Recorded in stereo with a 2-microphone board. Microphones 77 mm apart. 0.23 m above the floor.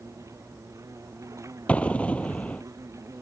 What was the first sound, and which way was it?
An insect, 40° right (ahead or behind).